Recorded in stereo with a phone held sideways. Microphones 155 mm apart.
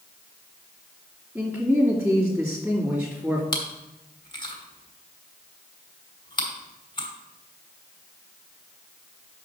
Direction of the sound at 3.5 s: 30° left (ahead or behind).